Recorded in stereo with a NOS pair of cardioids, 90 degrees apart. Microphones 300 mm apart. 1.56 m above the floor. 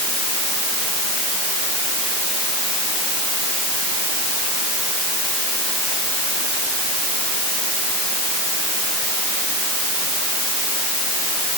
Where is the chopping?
I don't hear chopping.